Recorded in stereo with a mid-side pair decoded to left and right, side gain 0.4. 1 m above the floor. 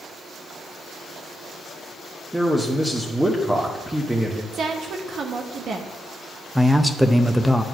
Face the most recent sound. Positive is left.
turn(degrees=0)